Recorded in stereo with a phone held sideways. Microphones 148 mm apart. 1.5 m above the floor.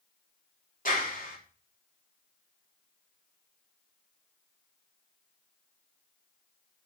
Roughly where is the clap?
Left.